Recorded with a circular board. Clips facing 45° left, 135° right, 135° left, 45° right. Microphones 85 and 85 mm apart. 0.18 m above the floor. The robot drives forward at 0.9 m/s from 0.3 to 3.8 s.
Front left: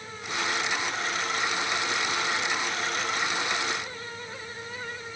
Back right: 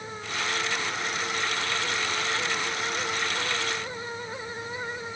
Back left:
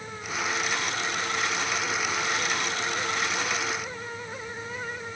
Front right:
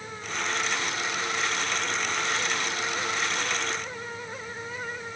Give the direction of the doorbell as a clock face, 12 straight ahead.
I don't hear a doorbell.